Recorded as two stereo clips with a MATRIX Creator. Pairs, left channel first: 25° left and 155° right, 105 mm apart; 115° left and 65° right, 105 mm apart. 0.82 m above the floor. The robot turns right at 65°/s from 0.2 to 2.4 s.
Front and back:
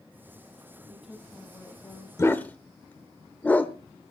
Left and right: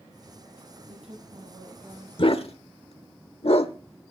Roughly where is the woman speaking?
Right.